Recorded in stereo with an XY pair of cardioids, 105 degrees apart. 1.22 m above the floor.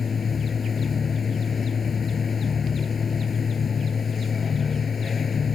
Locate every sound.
0.0 s a machine running: 40° left